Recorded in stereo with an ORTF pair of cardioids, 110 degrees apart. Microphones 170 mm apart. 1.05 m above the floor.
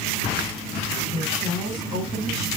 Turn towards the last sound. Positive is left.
turn(degrees=-20)